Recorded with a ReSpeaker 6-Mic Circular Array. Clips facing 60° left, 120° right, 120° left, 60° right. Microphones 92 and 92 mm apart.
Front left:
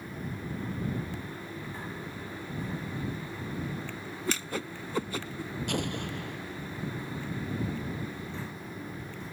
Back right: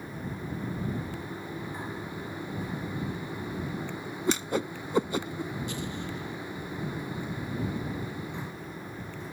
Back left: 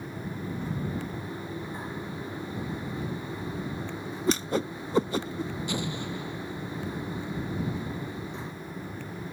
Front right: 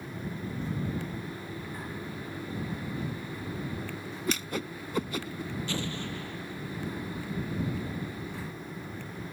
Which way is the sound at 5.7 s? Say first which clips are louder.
Front left 2 dB, back left 2 dB; 50° left.